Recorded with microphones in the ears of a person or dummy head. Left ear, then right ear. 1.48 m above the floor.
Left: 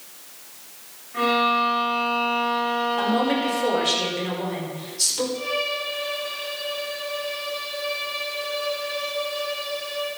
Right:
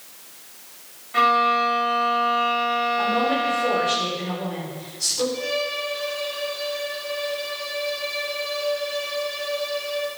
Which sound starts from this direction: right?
A violin, at 1.1 s.